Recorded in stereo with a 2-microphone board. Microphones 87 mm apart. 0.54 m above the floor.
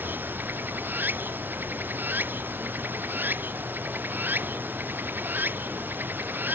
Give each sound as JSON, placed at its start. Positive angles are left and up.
{"t": 0.0, "sound": "running water", "side_deg": -20}